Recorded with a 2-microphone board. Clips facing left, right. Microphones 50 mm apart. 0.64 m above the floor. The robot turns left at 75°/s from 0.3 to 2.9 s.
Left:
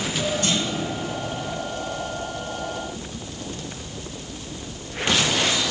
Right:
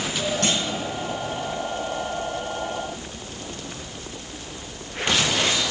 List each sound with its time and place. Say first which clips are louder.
0.4 s a clunk: even; 80° right, 3 m; by 0.8 s 60° right (ahead or behind), 3 m